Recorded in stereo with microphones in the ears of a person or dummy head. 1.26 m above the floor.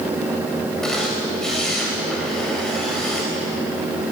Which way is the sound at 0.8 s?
5° left (ahead or behind).